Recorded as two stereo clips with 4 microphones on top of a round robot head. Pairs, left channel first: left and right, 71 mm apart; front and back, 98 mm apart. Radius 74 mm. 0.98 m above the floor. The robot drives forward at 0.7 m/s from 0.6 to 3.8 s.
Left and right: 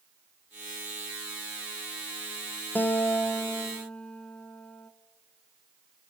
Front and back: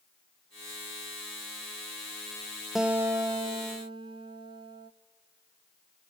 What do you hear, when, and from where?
2.8 s a guitar: 95° left, 0.5 m; by 4.9 s 165° left, 0.9 m